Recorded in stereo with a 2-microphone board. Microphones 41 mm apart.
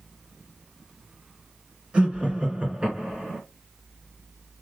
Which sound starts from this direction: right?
Laughter, at 1.9 s.